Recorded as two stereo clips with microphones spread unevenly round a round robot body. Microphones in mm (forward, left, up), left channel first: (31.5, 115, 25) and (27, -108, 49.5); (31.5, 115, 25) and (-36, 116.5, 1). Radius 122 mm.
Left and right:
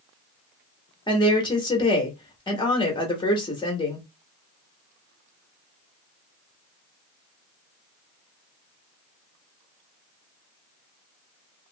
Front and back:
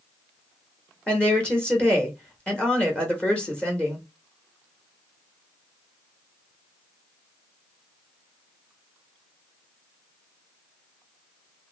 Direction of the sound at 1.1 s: 100° left.